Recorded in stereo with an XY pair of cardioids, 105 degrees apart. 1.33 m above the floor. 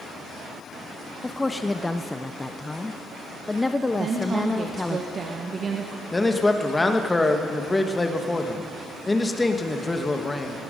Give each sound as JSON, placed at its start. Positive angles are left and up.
{"t": 1.2, "sound": "a woman speaking", "azimuth_deg": 15, "distance_m": 0.5}
{"t": 4.0, "sound": "a woman speaking", "azimuth_deg": -45, "distance_m": 1.3}
{"t": 6.1, "sound": "a man speaking", "azimuth_deg": 15, "distance_m": 1.4}